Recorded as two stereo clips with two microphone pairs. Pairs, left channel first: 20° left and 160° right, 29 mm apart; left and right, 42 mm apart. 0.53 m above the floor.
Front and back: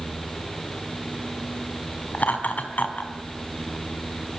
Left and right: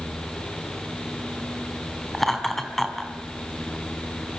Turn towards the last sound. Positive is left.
turn(degrees=5)